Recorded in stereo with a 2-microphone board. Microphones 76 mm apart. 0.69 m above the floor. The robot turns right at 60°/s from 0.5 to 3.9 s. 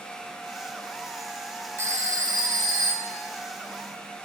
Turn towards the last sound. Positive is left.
turn(degrees=-10)